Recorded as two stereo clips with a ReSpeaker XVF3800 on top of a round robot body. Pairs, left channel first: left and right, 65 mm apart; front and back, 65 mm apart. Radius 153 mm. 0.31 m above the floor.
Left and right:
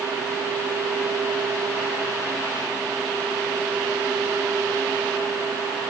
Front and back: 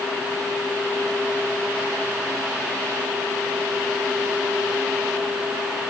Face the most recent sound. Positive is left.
No sound to turn to.